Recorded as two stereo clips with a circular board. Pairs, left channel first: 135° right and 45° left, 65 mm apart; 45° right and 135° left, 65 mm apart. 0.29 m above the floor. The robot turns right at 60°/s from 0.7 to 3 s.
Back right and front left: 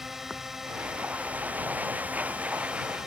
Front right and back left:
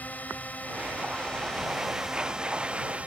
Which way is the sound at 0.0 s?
35° right.